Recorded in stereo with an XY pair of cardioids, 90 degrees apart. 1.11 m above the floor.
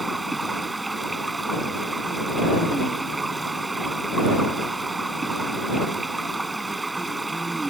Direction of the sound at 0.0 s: 20° right.